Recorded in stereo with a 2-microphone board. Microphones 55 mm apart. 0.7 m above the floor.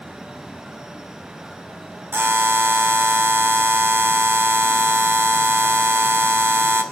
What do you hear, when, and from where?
2.1 s a buzzer: 45° right (ahead or behind), 2 m